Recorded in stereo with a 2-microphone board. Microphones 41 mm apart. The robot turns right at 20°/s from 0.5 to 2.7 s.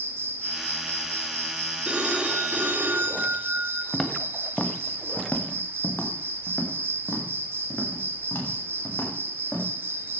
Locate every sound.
0.0 s an insect: 110° right, 1.1 m; by 10.2 s 65° right, 1.1 m
1.9 s a phone ringing: 30° right (ahead or behind), 2.5 m; by 3.8 s 45° right (ahead or behind), 2.5 m
3.9 s footsteps: 10° left (ahead or behind), 1.6 m; by 9.7 s 75° left (ahead or behind), 7.5 m